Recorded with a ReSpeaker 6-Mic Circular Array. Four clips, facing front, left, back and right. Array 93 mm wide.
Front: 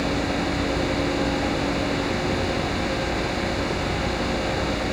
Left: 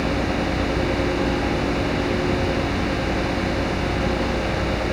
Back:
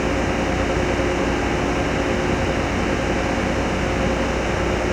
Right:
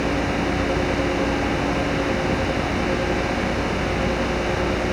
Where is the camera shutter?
I don't hear a camera shutter.